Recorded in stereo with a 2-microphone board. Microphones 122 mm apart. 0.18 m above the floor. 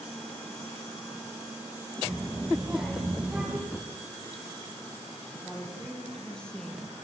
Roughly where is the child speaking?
Centre.